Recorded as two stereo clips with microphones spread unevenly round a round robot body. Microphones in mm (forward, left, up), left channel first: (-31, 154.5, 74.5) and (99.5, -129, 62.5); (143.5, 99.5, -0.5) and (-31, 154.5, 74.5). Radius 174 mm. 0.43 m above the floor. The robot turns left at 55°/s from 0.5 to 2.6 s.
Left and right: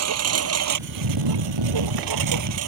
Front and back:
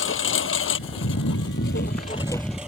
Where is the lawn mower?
25° right; by 2.7 s 110° right.